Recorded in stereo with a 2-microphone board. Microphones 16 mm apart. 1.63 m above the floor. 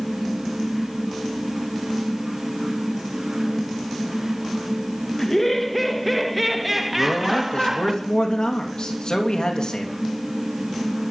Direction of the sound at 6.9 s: 65° left (ahead or behind).